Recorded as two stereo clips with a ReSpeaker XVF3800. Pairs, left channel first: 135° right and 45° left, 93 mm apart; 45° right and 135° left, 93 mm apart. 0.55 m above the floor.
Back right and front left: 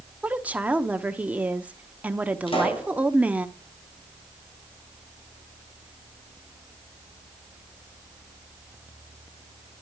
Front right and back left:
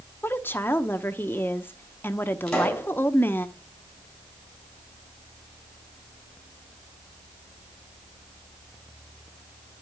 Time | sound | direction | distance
0.2 | a woman speaking | 10° right | 0.8 m
2.5 | a pop | 130° right | 3.5 m